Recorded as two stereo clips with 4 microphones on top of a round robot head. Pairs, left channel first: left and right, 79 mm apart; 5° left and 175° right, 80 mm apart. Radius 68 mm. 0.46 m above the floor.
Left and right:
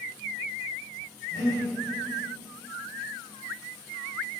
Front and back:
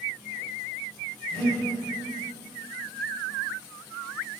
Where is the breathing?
70° left, 0.6 m.